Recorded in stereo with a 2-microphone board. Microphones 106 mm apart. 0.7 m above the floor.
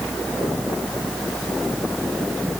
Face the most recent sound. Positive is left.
No sound to turn to.